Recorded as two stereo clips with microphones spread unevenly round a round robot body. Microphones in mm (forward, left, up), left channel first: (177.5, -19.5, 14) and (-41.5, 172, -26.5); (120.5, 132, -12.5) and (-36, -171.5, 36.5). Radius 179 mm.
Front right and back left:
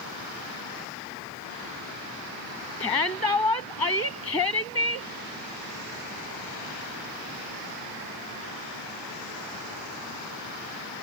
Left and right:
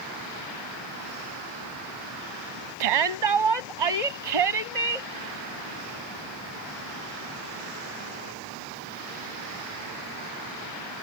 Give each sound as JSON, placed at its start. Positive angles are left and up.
{"t": 2.8, "sound": "a shout", "azimuth_deg": -120}